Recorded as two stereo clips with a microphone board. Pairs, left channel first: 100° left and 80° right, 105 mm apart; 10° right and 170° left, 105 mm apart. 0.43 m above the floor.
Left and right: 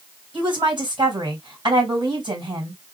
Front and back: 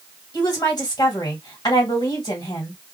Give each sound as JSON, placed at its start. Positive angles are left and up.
{"t": 0.3, "sound": "a woman speaking", "azimuth_deg": -55, "distance_m": 2.0}